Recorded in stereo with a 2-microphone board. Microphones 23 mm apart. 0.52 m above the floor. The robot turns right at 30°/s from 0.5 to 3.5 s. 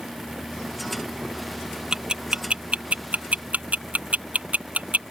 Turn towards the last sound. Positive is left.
turn(degrees=-80)